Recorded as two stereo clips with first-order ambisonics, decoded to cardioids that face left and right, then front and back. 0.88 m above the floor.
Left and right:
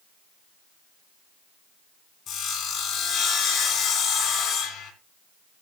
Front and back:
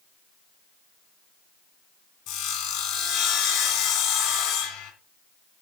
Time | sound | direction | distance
2.3 | sawing | 20° left | 2.5 m